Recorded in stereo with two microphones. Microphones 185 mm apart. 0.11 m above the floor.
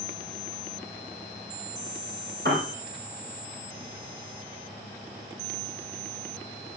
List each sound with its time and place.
2.5 s a piano: 60° right (ahead or behind), 5 m